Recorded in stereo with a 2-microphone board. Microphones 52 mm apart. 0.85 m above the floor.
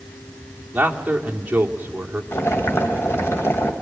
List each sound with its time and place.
0.7 s a man speaking: 30° right (ahead or behind), 2.5 m
2.3 s boiling: 50° left (ahead or behind), 2.5 m